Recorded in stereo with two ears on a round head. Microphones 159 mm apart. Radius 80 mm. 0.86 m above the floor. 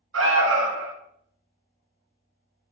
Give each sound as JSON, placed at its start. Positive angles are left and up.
{"t": 0.1, "sound": "an alarm", "side_deg": -85, "distance_m": 0.7}